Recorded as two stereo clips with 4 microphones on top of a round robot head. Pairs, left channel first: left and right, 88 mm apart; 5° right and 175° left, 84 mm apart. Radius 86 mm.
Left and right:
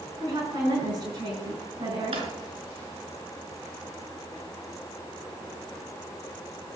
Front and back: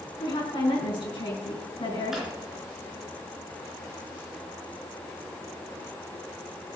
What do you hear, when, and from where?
0.2 s a woman speaking: 45° right, 4.5 m
2.1 s a drawer: 100° right, 4.5 m